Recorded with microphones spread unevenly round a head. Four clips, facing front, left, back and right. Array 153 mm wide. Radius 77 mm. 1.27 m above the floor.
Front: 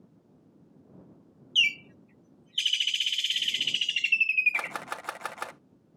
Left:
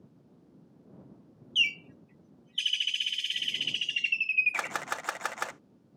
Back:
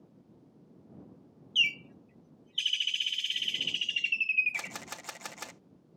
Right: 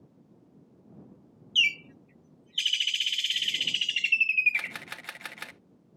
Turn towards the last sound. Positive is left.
turn(degrees=50)